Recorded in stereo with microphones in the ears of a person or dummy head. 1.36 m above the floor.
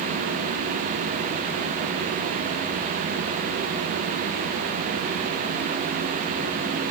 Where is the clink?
I don't hear a clink.